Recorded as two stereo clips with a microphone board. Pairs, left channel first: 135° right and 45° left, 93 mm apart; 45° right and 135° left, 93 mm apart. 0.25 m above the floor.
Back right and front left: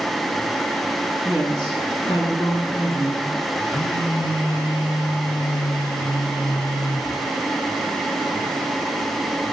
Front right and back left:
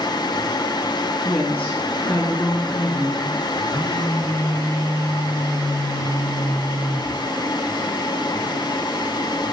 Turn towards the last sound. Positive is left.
turn(degrees=-100)